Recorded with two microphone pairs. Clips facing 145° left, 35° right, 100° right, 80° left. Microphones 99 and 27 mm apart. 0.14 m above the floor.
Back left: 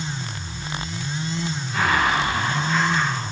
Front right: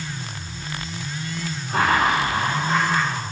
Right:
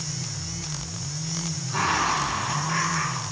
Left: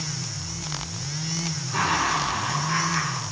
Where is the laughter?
5° left, 5 m.